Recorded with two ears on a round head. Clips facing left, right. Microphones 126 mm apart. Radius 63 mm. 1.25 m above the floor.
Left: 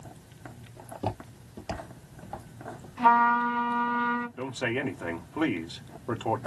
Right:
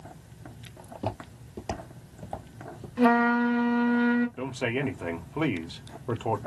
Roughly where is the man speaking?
Centre.